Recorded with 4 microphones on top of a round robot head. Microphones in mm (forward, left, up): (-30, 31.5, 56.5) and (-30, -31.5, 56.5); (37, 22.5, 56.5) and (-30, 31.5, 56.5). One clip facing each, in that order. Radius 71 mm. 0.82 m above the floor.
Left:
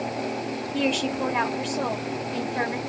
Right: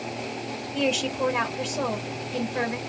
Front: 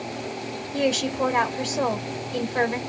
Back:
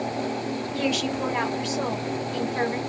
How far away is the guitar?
I don't hear a guitar.